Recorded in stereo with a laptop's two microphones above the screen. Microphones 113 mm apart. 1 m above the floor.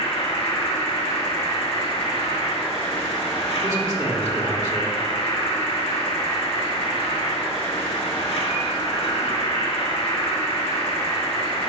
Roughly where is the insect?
Left.